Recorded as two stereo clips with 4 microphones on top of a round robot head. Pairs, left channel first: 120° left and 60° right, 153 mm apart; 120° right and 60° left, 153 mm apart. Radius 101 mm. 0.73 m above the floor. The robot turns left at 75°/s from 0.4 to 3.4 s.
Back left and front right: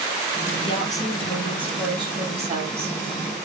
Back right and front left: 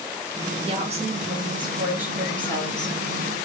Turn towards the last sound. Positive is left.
turn(degrees=-120)